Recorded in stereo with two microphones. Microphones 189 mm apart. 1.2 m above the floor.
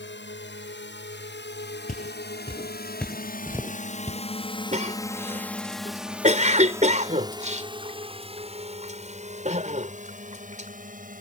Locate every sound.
0.0 s a drone: 75° left (ahead or behind); by 11.2 s 45° right (ahead or behind)
1.9 s footsteps: 45° left (ahead or behind); by 4.2 s 30° right (ahead or behind)
4.7 s a cough: 40° right (ahead or behind)